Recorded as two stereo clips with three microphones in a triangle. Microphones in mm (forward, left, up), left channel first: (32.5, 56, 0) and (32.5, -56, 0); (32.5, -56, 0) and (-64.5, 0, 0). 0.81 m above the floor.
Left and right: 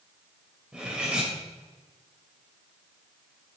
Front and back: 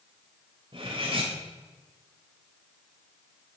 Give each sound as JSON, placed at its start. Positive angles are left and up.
{"t": 0.7, "sound": "cutlery clinking", "azimuth_deg": -170, "distance_m": 2.5}